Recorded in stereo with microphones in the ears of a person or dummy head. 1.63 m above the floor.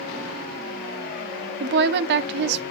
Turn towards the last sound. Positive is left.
turn(degrees=-65)  # may be behind; listen again after turning